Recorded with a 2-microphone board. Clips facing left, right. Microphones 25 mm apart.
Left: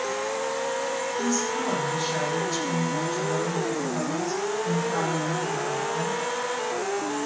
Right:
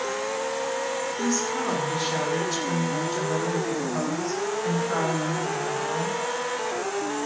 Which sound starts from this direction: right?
A woman speaking, at 1.2 s.